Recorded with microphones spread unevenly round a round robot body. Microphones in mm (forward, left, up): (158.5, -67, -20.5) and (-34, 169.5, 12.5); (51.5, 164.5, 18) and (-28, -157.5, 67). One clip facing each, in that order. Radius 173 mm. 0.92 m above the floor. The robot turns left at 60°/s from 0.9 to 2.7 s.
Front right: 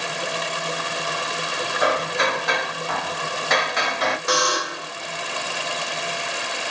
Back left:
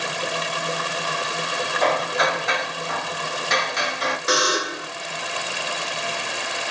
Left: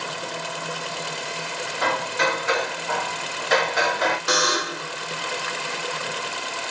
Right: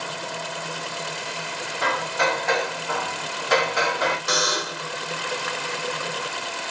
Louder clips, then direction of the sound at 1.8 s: Even, even; 35° left.